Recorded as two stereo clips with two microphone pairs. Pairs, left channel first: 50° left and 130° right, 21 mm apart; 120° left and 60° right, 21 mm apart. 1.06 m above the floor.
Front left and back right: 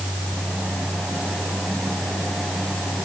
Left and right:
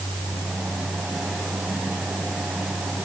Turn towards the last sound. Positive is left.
No sound to turn to.